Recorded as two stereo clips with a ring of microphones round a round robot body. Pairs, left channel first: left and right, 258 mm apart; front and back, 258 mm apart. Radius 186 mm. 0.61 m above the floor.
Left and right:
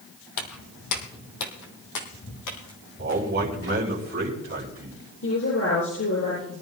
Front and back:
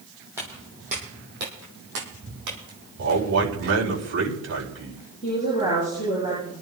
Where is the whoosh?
I don't hear a whoosh.